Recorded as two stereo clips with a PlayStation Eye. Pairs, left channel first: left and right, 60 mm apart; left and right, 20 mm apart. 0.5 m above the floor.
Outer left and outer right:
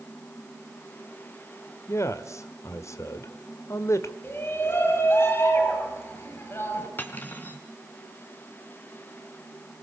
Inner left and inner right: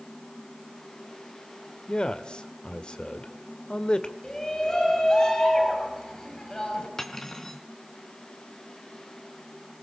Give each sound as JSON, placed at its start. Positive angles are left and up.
{"t": 1.9, "sound": "a man speaking", "side_deg": 55, "distance_m": 2.0}
{"t": 4.2, "sound": "a shout", "side_deg": 40, "distance_m": 9.5}
{"t": 7.0, "sound": "cutlery clinking", "side_deg": 35, "distance_m": 3.0}